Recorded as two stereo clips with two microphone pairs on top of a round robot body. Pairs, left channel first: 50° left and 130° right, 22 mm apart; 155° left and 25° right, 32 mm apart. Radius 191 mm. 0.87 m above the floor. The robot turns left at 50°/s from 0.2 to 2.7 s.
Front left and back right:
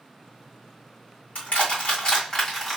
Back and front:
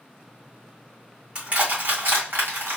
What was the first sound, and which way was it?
Crushing, 40° left.